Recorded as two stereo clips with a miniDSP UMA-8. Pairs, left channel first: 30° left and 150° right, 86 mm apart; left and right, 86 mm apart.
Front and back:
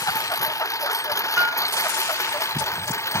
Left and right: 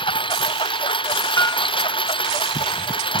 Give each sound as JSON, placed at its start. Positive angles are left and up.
{"t": 0.0, "sound": "a lawn mower", "azimuth_deg": 80}
{"t": 1.4, "sound": "a piano", "azimuth_deg": 145}